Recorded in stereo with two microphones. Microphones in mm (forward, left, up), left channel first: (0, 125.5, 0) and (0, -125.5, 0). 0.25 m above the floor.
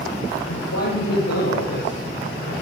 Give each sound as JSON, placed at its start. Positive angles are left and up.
{"t": 0.5, "sound": "a man speaking", "side_deg": 80, "distance_m": 8.0}